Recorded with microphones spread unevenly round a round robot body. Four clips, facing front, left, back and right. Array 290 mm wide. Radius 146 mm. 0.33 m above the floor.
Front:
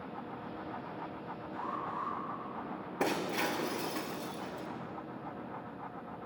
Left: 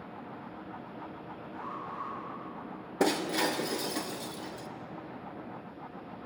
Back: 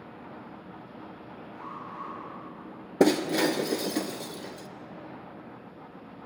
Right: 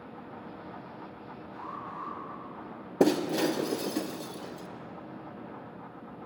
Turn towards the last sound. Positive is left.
turn(degrees=-150)